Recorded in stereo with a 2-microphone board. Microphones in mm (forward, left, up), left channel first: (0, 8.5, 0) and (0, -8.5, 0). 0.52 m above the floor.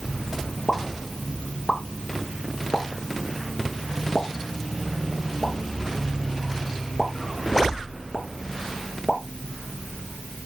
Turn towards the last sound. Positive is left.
turn(degrees=45)  # may be behind; listen again after turning